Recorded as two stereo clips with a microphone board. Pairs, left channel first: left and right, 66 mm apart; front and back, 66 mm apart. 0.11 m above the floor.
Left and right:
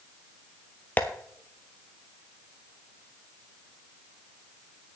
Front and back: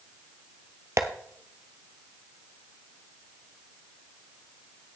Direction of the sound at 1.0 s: 145° left.